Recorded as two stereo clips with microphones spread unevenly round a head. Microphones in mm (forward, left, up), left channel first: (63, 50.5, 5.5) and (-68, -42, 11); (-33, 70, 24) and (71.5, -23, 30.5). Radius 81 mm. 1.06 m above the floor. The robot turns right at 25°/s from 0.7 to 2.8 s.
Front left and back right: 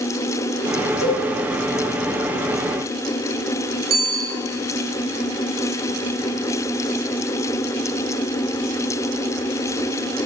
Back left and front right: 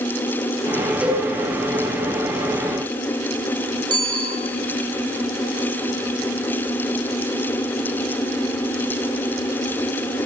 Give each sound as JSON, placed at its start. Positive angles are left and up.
{"t": 1.0, "sound": "a cowbell", "azimuth_deg": 40, "distance_m": 4.5}
{"t": 3.9, "sound": "a bicycle bell", "azimuth_deg": -105, "distance_m": 7.0}